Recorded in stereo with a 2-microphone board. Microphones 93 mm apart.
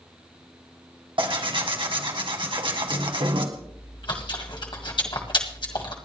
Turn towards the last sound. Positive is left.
turn(degrees=60)  # may be behind; listen again after turning